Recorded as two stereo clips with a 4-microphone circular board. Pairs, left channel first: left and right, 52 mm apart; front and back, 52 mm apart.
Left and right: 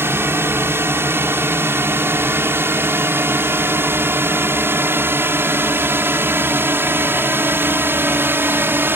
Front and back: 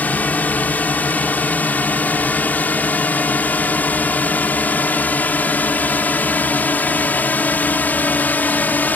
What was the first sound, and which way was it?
A drone, 55° right.